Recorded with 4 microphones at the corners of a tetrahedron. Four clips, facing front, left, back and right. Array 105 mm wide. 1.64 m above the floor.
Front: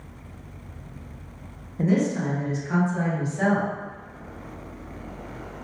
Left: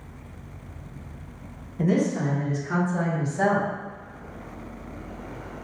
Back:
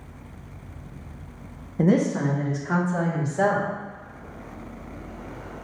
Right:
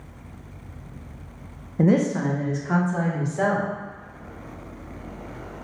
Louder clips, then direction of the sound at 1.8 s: Right 3 dB, back 2 dB; 130° right.